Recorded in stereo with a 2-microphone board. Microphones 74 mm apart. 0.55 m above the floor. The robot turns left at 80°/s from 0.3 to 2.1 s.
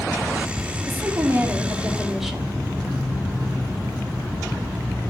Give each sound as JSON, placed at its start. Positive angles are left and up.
{"t": 0.9, "sound": "a woman speaking", "azimuth_deg": -75, "distance_m": 1.0}